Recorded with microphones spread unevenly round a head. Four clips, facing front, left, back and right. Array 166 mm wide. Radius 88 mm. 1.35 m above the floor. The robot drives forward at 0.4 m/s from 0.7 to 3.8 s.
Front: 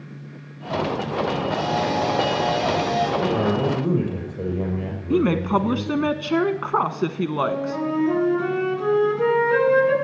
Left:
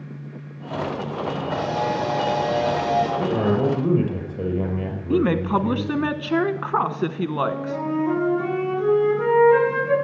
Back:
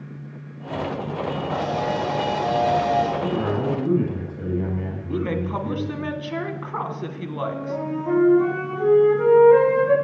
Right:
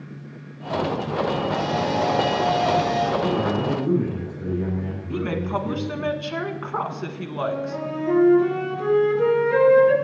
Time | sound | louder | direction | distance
1.5 | a camera shutter | even, front 1 dB | 120° left | 6 m
3.2 | a man speaking | left 2 dB, front 2 dB | 55° left | 6 m
5.1 | a woman speaking | left 6 dB, front 7 dB | 45° left | 1.1 m
7.4 | a flute | right 2 dB, front 1 dB | 140° left | 6.5 m